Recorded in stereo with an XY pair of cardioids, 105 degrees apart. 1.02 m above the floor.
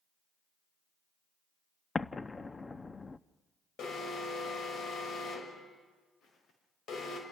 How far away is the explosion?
About 0.7 m.